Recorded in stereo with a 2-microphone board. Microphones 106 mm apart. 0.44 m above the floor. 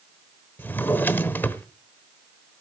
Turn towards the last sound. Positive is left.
turn(degrees=20)  # may be behind; listen again after turning